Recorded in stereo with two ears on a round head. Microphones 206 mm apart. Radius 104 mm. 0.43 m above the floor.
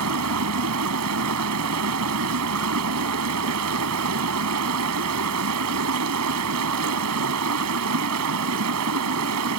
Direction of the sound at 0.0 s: 70° right (ahead or behind).